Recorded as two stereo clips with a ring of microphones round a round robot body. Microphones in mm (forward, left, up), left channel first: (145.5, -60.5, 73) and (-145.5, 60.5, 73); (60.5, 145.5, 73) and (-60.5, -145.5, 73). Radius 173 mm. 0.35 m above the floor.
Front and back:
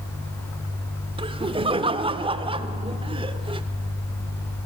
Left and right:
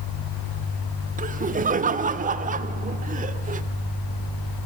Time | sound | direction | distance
1.2 | laughter | 145° right | 0.9 m